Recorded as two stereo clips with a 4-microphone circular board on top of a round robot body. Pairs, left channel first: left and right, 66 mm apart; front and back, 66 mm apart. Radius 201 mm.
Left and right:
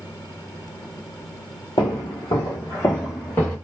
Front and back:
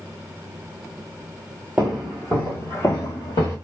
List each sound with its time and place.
1.8 s footsteps: 100° left, 0.7 m; by 3.5 s 25° left, 0.9 m